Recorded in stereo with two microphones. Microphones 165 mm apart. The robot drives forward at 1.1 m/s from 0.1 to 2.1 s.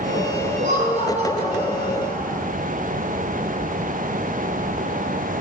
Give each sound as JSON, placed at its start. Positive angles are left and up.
{"t": 0.6, "sound": "laughter", "side_deg": -45, "distance_m": 4.5}